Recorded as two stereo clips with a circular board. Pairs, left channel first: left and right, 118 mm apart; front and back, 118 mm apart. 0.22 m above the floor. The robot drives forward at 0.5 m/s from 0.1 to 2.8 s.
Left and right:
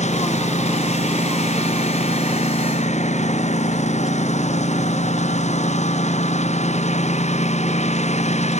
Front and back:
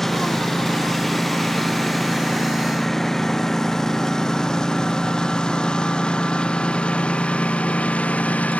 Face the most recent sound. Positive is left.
turn(degrees=80)